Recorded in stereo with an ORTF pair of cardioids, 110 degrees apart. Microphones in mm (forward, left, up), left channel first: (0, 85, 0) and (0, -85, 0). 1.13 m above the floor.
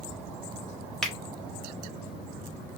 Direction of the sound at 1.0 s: 5° left.